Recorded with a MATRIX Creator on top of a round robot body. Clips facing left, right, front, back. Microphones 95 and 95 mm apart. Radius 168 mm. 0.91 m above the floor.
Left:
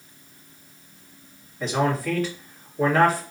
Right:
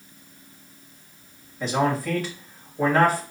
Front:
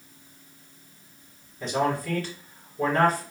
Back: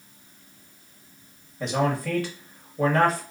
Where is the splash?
I don't hear a splash.